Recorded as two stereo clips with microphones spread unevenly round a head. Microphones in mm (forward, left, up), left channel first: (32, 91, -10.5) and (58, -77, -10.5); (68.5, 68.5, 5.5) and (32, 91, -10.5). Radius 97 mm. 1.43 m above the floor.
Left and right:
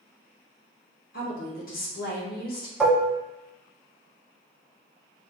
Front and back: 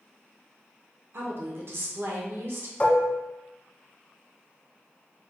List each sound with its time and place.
1.1 s a woman speaking: 145° left, 0.7 m
2.8 s dishes clattering: 5° left, 0.9 m